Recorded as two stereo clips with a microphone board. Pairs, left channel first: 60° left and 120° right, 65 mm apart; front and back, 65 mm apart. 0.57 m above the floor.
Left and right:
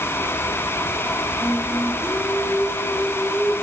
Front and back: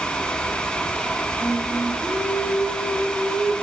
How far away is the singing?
About 7 m.